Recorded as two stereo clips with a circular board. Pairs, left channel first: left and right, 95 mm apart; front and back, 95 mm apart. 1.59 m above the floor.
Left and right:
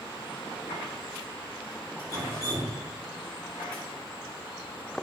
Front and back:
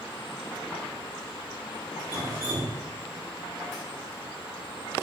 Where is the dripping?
130° right, 1.4 m.